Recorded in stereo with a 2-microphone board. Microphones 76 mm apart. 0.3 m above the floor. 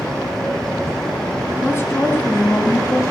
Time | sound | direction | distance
1.6 | a woman speaking | 30° left (ahead or behind) | 2.5 m